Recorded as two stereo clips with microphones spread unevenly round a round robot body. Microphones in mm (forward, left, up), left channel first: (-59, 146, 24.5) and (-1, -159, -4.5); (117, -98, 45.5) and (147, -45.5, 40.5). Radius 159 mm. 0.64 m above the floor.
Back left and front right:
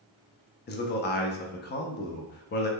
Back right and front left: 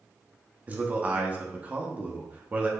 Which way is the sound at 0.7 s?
75° left.